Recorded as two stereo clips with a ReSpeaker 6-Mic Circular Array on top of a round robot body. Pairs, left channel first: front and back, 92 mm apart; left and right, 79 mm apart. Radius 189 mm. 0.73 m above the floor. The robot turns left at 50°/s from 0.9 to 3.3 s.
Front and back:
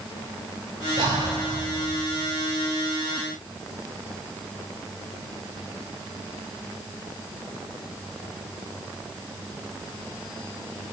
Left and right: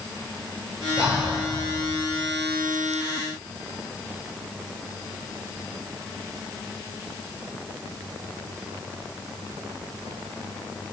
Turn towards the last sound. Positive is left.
turn(degrees=25)